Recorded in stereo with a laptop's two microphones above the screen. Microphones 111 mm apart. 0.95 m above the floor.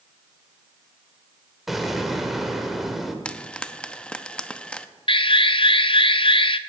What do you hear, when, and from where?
1.7 s an explosion: centre (ahead or behind), 1.7 m
3.2 s frying: 10° left (ahead or behind), 0.8 m
5.1 s an alarm: 50° left (ahead or behind), 0.5 m